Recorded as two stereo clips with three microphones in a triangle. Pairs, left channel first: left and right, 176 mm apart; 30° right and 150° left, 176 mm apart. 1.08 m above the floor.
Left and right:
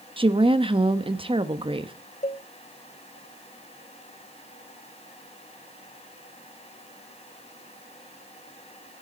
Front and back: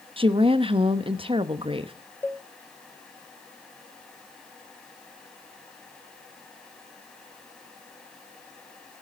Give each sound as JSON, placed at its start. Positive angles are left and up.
{"t": 0.2, "sound": "a woman speaking", "azimuth_deg": -150, "distance_m": 1.0}
{"t": 2.2, "sound": "a cowbell", "azimuth_deg": 45, "distance_m": 0.9}